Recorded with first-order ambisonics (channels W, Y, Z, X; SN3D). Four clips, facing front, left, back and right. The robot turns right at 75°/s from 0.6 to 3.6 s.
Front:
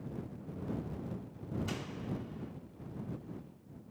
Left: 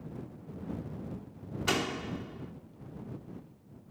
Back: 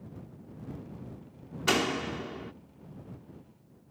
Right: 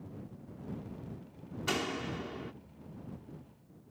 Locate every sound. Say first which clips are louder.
1.7 s a door slam: left 3 dB, back 12 dB; 160° left; by 2.5 s 135° right